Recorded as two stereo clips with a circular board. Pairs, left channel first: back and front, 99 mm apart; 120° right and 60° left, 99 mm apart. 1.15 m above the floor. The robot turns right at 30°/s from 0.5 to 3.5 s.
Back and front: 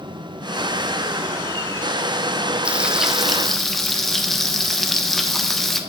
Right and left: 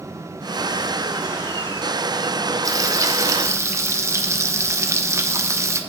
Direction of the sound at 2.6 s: 70° left.